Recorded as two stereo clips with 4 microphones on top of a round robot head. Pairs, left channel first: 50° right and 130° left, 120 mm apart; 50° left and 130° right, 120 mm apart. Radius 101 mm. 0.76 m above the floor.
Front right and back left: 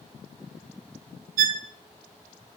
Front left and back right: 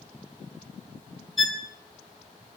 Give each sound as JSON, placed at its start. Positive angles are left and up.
{"t": 1.4, "sound": "a violin", "azimuth_deg": 140, "distance_m": 1.1}